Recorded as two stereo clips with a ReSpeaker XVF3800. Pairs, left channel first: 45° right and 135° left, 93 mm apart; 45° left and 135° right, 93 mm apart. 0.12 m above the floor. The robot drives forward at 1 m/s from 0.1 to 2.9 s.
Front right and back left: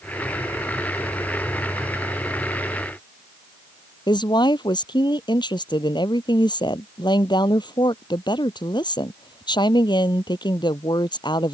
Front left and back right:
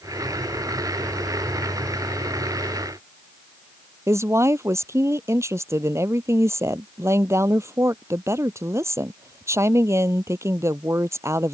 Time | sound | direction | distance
4.1 | a woman speaking | 80° right | ?